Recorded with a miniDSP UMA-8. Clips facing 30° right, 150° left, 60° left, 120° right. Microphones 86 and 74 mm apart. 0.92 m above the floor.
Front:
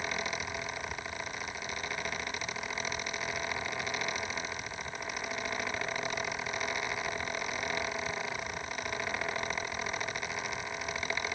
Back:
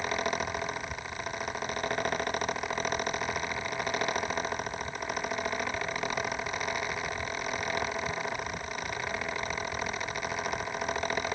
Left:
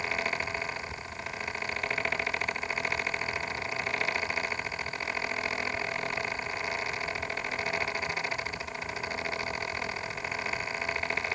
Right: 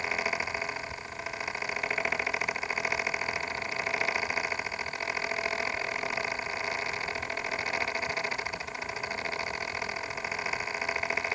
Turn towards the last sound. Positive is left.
No sound to turn to.